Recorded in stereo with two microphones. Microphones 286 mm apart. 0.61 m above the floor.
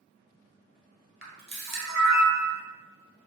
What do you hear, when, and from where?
1.2 s a camera shutter: 40° right (ahead or behind), 1.4 m